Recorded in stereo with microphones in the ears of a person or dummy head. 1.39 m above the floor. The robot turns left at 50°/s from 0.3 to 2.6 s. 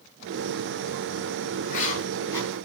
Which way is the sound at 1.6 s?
60° left.